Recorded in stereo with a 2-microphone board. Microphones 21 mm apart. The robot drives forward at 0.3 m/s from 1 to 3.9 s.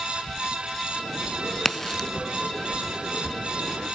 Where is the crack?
15° left (ahead or behind), 0.6 m.